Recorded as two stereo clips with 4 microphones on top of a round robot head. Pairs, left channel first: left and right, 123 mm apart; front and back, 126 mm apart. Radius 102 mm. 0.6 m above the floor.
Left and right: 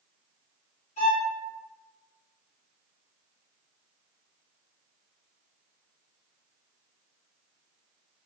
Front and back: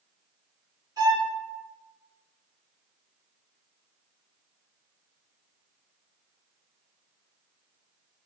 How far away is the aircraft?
No aircraft in this recording.